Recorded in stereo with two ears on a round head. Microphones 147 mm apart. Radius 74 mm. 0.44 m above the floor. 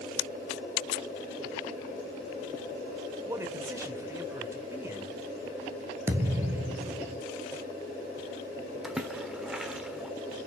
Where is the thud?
15° right (ahead or behind), 1.2 m.